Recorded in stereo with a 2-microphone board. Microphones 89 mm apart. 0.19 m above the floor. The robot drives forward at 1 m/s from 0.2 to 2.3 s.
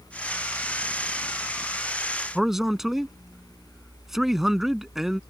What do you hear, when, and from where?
2.4 s a man speaking: 5° right (ahead or behind)